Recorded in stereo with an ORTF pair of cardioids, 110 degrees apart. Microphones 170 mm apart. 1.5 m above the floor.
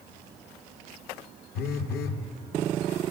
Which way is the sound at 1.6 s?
70° left.